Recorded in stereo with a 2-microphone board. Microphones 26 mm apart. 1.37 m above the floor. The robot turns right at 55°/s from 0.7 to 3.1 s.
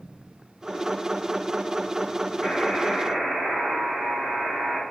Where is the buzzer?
160° right, 5.5 m; by 4.8 s 125° right, 5.5 m.